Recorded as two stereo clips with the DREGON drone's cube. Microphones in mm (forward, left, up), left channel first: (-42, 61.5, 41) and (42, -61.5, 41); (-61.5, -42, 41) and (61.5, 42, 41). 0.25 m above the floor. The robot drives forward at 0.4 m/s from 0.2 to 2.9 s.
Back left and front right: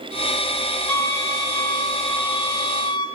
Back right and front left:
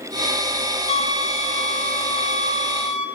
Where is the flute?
170° right, 0.6 m; by 3.1 s 175° right, 1.3 m.